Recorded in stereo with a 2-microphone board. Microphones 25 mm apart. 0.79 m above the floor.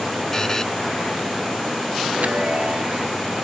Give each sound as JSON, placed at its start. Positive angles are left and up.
{"t": 0.3, "sound": "a buzzer", "side_deg": 20}
{"t": 2.1, "sound": "a chime", "side_deg": -70}